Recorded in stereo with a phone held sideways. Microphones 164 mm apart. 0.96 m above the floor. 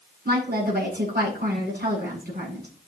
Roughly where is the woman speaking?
Right.